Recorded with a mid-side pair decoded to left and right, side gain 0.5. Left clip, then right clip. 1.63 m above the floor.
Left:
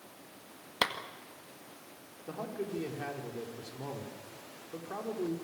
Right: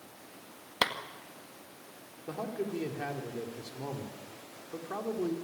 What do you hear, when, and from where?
0.8 s a clap: straight ahead, 1.9 m
2.3 s a man speaking: 10° right, 4.5 m